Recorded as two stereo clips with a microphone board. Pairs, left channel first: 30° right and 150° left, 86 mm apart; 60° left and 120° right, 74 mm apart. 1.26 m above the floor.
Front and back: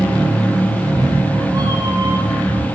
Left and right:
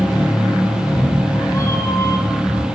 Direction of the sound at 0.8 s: 95° left.